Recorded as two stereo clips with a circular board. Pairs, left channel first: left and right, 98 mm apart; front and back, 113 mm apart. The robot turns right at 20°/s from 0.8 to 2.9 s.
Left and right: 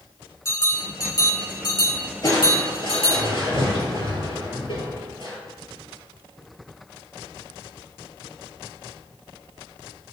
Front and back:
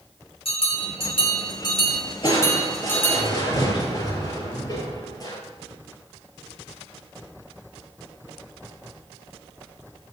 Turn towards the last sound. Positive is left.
turn(degrees=55)